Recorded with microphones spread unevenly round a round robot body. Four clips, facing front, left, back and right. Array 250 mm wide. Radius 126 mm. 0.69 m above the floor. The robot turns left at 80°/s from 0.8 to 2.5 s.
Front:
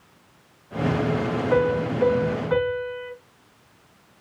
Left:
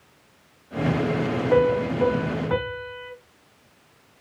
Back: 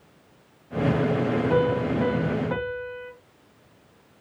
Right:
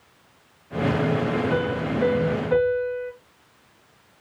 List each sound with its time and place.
1.5 s a piano: straight behind, 5 m; by 3.1 s 100° left, 5 m